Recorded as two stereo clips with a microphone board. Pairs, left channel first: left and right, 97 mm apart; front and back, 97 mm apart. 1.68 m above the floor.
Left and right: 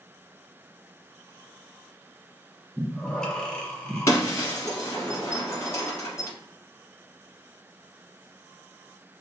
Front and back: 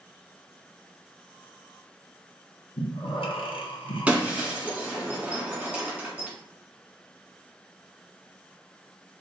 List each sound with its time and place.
2.8 s breathing: 10° left, 0.5 m
4.1 s breaking glass: 115° left, 1.0 m